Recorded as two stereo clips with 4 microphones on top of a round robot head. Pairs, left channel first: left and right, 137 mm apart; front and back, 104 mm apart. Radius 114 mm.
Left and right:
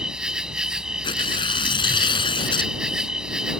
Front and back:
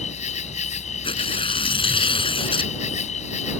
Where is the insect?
5° right.